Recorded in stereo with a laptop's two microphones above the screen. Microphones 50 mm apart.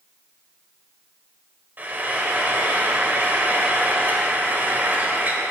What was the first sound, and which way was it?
Frying, 40° right (ahead or behind).